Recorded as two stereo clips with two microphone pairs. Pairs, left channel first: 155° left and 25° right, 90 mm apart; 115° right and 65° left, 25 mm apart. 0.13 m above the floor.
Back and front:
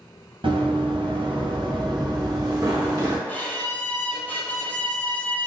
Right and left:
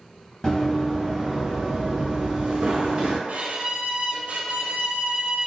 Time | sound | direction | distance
0.4 | running footsteps | 40° right | 1.2 m
3.3 | a violin | 80° left | 0.9 m